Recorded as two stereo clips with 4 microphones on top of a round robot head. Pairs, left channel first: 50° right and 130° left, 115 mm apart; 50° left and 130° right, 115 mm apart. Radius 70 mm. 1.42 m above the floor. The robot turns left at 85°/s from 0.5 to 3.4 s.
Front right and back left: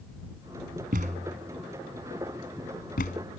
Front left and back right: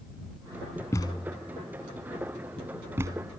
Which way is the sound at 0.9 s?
115° left.